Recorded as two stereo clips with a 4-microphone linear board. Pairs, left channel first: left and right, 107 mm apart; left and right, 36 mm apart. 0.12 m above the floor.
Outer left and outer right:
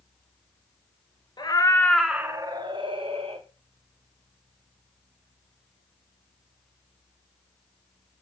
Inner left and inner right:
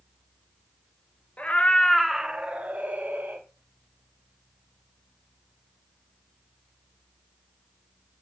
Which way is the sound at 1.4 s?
45° left (ahead or behind).